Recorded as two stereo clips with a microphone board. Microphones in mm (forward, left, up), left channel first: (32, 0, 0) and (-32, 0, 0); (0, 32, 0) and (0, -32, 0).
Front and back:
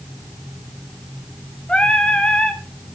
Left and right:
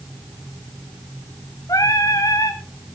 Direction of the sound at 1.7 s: 75° left.